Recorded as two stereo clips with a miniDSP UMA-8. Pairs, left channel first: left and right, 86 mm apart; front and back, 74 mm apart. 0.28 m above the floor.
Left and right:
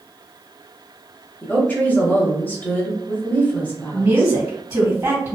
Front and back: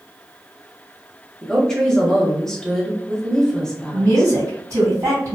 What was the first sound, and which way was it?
A woman speaking, 70° left.